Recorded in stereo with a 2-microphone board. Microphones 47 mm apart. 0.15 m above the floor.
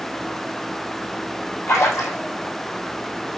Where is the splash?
75° left (ahead or behind), 6 m.